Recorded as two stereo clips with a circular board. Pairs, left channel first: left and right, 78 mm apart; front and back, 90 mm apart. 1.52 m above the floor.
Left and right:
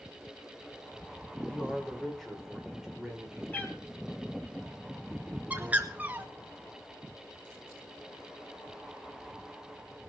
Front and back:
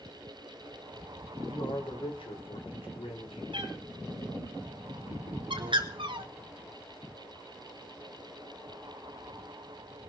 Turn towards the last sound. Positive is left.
turn(degrees=-160)